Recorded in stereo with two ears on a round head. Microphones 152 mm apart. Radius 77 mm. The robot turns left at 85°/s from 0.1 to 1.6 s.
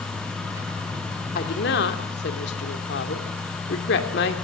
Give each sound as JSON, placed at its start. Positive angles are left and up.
{"t": 1.4, "sound": "a woman speaking", "side_deg": 55, "distance_m": 2.5}